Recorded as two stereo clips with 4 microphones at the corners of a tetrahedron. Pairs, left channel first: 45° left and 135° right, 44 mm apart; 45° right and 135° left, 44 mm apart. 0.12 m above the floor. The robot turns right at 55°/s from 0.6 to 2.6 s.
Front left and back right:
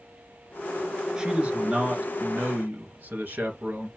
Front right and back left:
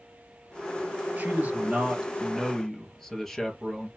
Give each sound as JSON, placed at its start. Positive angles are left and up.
{"t": 1.2, "sound": "a man speaking", "azimuth_deg": 160, "distance_m": 1.8}